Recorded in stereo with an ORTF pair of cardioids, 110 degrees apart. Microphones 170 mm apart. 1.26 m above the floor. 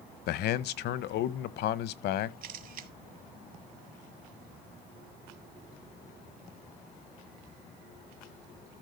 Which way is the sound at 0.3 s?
70° left.